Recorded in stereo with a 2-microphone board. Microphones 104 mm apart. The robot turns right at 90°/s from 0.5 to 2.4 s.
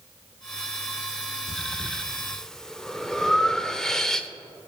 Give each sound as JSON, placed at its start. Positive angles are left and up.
{"t": 1.5, "sound": "breathing", "side_deg": 75, "distance_m": 0.5}